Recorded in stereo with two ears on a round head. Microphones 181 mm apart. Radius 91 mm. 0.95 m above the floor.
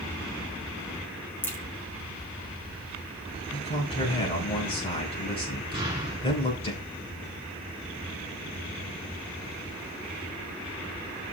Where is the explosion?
20° right (ahead or behind), 4.5 m.